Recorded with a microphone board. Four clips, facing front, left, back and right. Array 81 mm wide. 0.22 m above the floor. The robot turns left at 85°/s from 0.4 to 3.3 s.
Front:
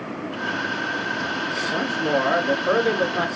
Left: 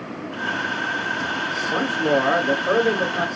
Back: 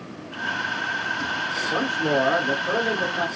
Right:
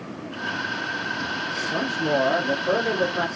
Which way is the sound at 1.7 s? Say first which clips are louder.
Left 4 dB, even; 115° left.